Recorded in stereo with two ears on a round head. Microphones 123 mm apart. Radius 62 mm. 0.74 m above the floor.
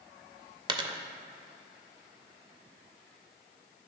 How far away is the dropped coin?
About 0.6 m.